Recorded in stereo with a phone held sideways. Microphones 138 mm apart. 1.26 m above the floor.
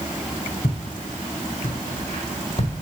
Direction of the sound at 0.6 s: 65° left (ahead or behind).